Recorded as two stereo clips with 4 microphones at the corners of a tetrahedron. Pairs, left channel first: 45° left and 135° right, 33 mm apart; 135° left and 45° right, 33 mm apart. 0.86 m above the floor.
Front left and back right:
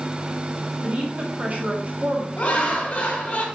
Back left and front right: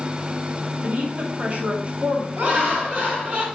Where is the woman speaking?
95° right, 2 m.